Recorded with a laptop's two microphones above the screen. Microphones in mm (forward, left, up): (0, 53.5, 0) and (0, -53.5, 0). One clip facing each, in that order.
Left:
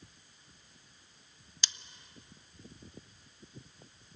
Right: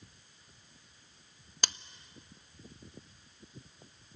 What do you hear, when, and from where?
1.6 s scissors: 55° right (ahead or behind), 0.5 m